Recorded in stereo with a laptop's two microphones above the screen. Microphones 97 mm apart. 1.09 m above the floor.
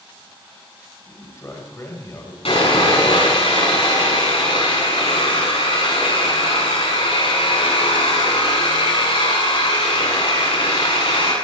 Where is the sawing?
85° left, 8.5 m.